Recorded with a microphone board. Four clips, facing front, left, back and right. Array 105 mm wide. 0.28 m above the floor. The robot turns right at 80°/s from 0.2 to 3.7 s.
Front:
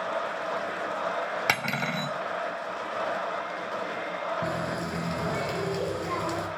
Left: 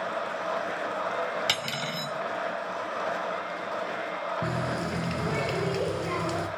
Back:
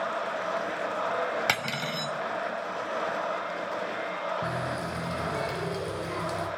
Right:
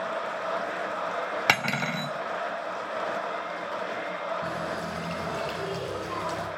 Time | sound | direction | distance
1.5 | cutlery clinking | 80° right | 0.6 m
4.4 | a running tap | 75° left | 3.5 m